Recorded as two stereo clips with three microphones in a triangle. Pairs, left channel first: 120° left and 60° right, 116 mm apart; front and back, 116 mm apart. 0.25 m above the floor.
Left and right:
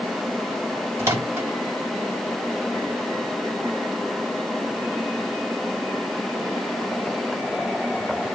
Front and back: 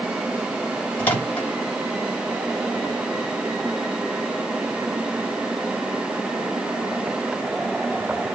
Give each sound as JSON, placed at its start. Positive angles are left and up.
{"t": 1.0, "sound": "a microwave", "azimuth_deg": -50, "distance_m": 0.9}